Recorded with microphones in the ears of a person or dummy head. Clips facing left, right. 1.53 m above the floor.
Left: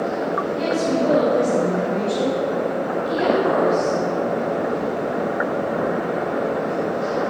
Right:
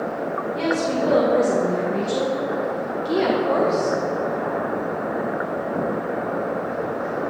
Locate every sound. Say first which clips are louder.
0.6 s a woman speaking: left 1 dB; 80° right, 2.0 m; by 4.0 s 35° right (ahead or behind), 1.4 m